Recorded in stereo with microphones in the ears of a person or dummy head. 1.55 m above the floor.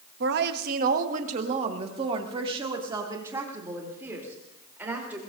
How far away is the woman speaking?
About 1.4 m.